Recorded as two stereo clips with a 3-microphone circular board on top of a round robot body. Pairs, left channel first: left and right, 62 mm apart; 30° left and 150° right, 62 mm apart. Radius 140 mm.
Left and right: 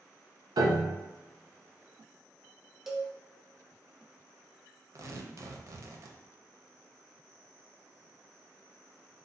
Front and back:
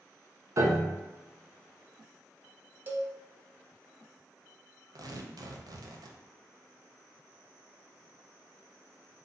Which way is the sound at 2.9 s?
165° right.